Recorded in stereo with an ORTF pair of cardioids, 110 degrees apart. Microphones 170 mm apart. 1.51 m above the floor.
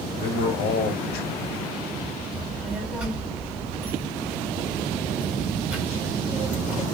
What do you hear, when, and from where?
0.2 s a man speaking: 65° left, 1.1 m
2.3 s a child speaking: 5° right, 1.8 m